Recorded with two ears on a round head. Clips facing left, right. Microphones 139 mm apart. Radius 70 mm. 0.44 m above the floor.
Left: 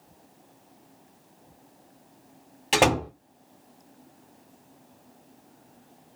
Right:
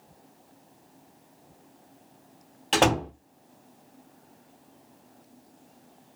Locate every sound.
2.7 s a door slam: 10° left (ahead or behind), 0.7 m